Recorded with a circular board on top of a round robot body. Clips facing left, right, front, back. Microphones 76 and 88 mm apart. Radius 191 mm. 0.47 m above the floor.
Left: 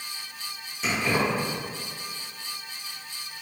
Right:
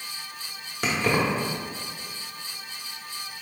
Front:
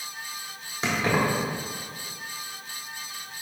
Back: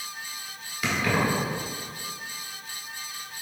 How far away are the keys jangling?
About 1.2 m.